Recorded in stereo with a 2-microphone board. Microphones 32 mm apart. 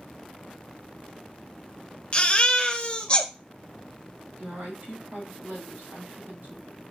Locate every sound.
2.1 s a baby crying: 35° left (ahead or behind), 0.7 m
4.4 s a woman speaking: 80° right, 3 m